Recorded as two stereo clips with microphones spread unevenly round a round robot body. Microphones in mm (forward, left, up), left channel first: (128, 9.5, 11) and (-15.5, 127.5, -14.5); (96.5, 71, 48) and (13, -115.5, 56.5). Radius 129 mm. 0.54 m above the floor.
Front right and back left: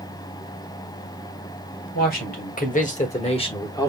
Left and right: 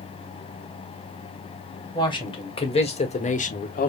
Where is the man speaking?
Straight ahead, 2 m; by 3.9 s 40° left, 1.1 m.